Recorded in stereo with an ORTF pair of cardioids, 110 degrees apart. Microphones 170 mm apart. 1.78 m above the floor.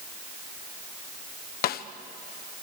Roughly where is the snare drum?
Ahead left.